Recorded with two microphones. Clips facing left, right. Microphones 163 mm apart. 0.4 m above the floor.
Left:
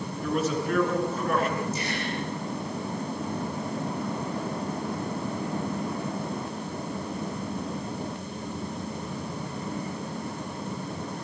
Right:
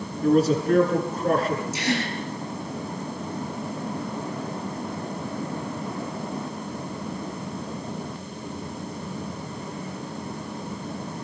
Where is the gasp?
85° right, 4 m.